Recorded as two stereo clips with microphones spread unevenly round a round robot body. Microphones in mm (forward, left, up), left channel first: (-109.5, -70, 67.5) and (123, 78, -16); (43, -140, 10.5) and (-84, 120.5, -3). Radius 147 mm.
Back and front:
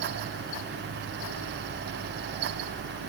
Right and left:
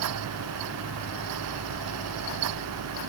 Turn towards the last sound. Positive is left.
No sound to turn to.